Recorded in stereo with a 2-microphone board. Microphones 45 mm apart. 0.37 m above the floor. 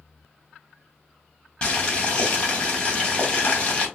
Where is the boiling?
25° left (ahead or behind), 1.3 m.